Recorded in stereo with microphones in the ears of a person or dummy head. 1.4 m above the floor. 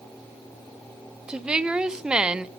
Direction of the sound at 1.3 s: 5° right (ahead or behind).